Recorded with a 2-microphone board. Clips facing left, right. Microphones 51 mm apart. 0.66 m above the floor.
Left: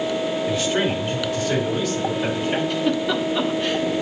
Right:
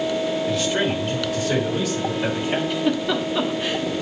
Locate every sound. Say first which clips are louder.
0.5 s a man speaking: even; 5° left (ahead or behind), 2.5 m; by 2.6 s 15° right (ahead or behind), 3.5 m
2.7 s a giggle: even; 5° right (ahead or behind), 0.9 m